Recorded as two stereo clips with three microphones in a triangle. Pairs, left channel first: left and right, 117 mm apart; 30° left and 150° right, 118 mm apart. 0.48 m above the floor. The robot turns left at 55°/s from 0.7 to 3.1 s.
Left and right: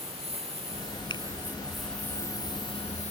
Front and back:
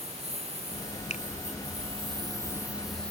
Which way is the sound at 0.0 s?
120° right.